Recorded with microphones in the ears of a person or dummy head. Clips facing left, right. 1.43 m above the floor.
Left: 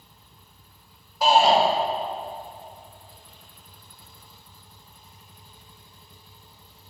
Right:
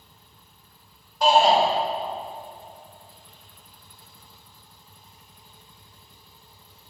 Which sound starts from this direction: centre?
A shout, at 1.2 s.